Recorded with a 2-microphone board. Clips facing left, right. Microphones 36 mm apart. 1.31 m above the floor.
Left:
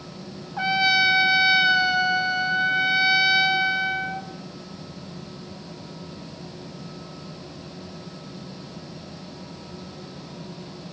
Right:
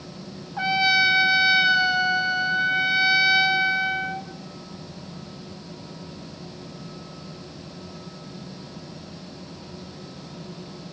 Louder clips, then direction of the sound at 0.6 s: Even; centre (ahead or behind).